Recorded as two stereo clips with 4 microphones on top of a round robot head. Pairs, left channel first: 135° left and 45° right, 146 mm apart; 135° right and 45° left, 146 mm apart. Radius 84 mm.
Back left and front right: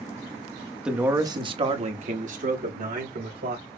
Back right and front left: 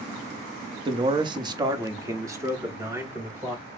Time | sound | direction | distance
0.8 | a man speaking | 35° left | 0.7 m